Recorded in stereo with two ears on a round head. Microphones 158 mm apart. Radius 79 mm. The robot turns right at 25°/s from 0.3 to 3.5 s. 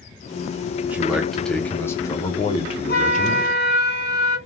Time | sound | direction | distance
0.8 | a man speaking | 10° right | 1.1 m
2.9 | a flute | 60° left (ahead or behind) | 2 m